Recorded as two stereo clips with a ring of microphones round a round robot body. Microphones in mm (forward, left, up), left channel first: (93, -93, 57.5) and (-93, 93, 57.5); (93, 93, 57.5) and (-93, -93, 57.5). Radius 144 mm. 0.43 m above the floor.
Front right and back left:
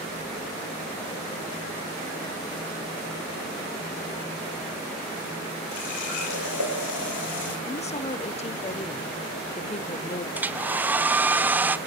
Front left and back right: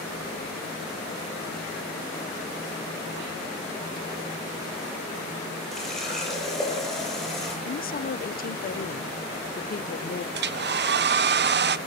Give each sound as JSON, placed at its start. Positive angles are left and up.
{"t": 5.7, "sound": "a running tap", "azimuth_deg": -45, "distance_m": 8.5}
{"t": 7.7, "sound": "a woman speaking", "azimuth_deg": 10, "distance_m": 1.0}
{"t": 10.3, "sound": "a hair dryer", "azimuth_deg": -145, "distance_m": 0.8}